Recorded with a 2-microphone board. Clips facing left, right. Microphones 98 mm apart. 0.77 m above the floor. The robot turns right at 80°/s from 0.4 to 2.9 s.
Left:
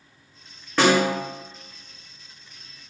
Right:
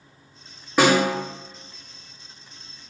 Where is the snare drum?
10° right (ahead or behind), 1.0 m; by 1.1 s 25° right (ahead or behind), 1.0 m.